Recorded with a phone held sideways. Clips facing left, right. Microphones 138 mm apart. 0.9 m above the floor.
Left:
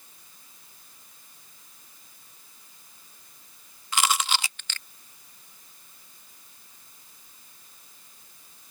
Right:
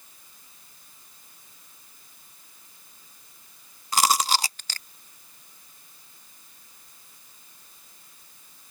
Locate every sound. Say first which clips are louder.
3.9 s chewing: right 4 dB; 40° right (ahead or behind)